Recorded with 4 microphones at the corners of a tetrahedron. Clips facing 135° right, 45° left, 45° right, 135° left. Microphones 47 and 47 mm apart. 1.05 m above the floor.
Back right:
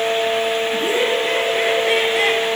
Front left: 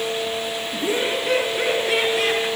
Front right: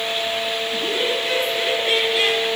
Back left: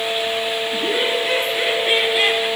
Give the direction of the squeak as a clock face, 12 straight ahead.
No squeak in this recording.